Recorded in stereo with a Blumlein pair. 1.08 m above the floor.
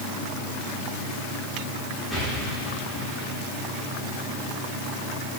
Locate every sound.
2.1 s an explosion: 15° left, 3.5 m